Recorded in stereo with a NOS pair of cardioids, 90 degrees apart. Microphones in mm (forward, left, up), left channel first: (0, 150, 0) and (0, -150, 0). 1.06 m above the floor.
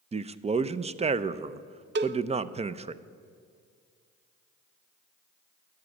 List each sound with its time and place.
0.1 s a man speaking: 20° right, 0.5 m
1.9 s a cowbell: 40° right, 0.6 m